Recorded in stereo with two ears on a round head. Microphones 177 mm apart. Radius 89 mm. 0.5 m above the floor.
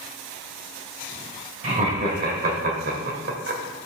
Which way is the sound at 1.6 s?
35° right (ahead or behind).